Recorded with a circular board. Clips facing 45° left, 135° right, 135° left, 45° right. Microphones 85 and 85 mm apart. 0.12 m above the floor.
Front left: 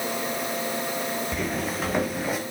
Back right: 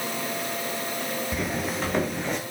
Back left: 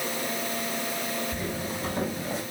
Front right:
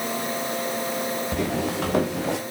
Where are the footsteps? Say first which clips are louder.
Even, front right 7 dB; 50° right, 2.5 m; by 2.4 s 40° right, 3 m.